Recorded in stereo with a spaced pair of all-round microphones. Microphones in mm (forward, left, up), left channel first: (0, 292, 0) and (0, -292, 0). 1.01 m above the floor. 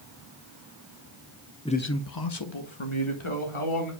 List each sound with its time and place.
1.6 s a man speaking: 5° left (ahead or behind), 0.7 m; by 3.9 s 55° left (ahead or behind), 2.5 m